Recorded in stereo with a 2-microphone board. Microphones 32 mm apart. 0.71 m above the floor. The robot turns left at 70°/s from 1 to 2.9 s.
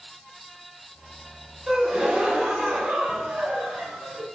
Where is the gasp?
10° right, 1.0 m; by 4.3 s 95° right, 1.0 m.